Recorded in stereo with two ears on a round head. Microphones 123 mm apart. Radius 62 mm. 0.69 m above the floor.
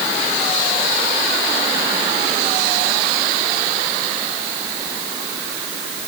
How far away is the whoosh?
No whoosh in this recording.